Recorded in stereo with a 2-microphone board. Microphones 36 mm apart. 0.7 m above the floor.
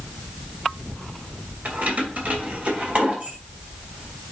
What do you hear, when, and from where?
1.6 s keys jangling: 50° right (ahead or behind), 2.5 m; by 3.4 s 40° right (ahead or behind), 3 m